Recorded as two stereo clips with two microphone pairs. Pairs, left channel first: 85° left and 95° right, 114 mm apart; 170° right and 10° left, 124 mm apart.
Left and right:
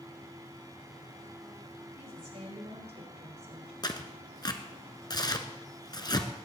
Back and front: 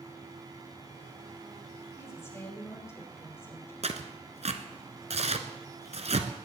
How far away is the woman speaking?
About 5.5 m.